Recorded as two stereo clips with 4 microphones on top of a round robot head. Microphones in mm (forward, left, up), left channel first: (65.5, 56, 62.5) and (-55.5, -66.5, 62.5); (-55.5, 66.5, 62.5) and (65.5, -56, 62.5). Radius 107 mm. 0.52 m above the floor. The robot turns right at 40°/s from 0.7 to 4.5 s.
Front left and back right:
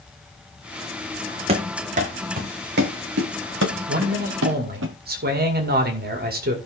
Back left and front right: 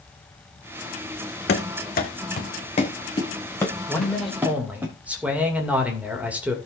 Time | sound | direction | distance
1.5 | running footsteps | 165° left | 1.4 m
3.9 | a man speaking | 150° right | 2.5 m